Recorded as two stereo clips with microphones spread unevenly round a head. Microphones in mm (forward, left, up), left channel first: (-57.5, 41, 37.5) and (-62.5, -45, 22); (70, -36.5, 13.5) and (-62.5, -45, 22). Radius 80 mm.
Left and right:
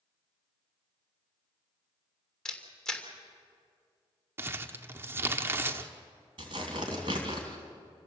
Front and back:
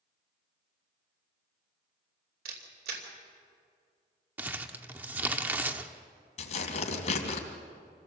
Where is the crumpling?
135° right, 0.9 m.